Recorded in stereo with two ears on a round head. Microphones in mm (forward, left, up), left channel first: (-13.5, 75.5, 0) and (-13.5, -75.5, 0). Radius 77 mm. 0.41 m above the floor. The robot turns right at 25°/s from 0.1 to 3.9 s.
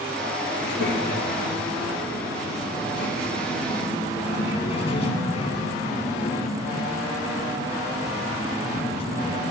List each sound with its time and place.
0.6 s a child speaking: 60° left, 2.5 m; by 9.5 s 140° left, 2.5 m